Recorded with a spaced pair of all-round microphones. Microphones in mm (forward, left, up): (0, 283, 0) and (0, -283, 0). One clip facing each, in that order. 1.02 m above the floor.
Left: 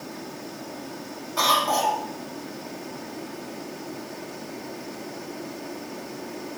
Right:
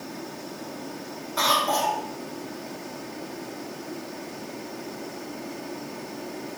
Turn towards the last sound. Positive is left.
turn(degrees=25)  # may be behind; listen again after turning